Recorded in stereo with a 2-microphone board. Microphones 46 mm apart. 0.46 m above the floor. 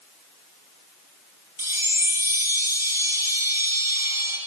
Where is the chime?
80° right, 3 m.